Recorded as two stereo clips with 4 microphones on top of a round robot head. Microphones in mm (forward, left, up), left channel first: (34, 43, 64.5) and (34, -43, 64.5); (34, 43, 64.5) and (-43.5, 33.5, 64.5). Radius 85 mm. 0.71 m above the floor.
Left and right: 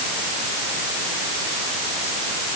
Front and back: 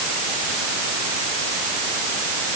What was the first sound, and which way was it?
Only background noise.